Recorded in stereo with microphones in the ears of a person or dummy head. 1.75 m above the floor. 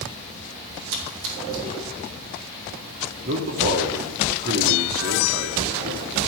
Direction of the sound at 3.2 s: 55° right (ahead or behind).